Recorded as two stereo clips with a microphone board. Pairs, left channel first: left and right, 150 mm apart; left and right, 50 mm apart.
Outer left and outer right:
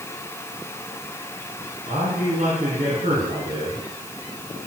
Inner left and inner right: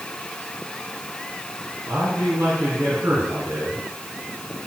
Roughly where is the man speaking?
Right.